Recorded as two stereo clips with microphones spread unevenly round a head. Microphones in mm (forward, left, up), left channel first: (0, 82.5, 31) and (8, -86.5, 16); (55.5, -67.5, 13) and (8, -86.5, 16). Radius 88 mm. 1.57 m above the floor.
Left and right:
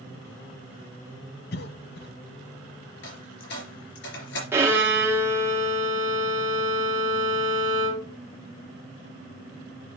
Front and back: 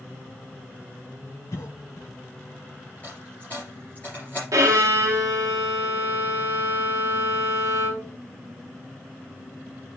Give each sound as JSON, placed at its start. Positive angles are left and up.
{"t": 1.5, "sound": "a cough", "azimuth_deg": 70, "distance_m": 0.6}
{"t": 3.0, "sound": "a dropped coin", "azimuth_deg": 100, "distance_m": 3.5}
{"t": 4.5, "sound": "a violin", "azimuth_deg": -165, "distance_m": 1.3}